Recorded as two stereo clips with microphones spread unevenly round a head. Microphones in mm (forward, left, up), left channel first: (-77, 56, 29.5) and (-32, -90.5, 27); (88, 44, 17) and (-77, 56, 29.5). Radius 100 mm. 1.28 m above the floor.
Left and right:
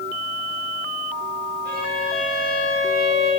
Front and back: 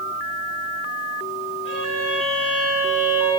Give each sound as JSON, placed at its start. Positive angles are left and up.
{"t": 1.6, "sound": "a violin", "azimuth_deg": -30, "distance_m": 10.0}